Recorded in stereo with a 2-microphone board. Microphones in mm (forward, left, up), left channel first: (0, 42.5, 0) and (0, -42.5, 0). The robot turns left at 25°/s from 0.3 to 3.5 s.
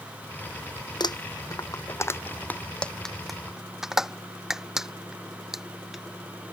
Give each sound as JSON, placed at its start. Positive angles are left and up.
{"t": 1.0, "sound": "crumpling", "side_deg": 55}